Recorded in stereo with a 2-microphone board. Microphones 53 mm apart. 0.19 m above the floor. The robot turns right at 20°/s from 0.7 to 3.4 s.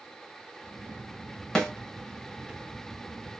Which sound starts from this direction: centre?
A snare drum, at 1.6 s.